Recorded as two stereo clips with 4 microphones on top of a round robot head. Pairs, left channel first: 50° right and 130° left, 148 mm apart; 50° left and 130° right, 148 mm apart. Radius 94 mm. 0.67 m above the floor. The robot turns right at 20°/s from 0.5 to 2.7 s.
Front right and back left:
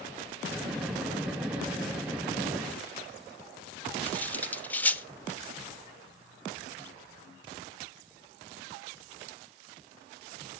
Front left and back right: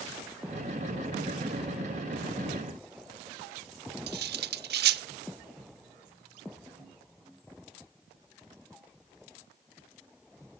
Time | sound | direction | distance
4.1 | cutlery clinking | 130° right | 1.2 m